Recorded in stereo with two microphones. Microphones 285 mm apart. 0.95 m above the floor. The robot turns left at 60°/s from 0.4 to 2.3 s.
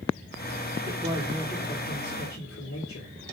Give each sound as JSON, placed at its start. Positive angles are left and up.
{"t": 0.9, "sound": "a man speaking", "azimuth_deg": -145, "distance_m": 2.5}